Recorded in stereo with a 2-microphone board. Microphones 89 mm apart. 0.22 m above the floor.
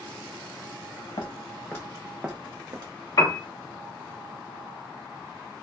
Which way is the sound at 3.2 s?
50° left (ahead or behind).